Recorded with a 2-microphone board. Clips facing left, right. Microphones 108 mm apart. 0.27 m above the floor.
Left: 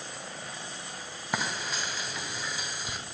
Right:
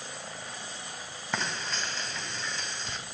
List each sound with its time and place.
1.3 s frying: 10° left (ahead or behind), 1.7 m